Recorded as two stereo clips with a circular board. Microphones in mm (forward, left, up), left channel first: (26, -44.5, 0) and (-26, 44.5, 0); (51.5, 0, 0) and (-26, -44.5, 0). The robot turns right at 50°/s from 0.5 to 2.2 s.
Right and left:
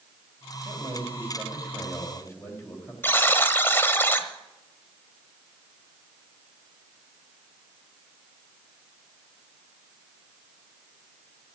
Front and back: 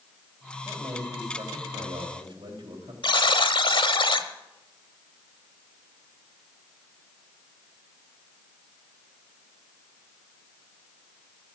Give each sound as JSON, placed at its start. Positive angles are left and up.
{"t": 0.7, "sound": "a man speaking", "azimuth_deg": 160, "distance_m": 3.5}
{"t": 3.0, "sound": "a buzzer", "azimuth_deg": 10, "distance_m": 0.9}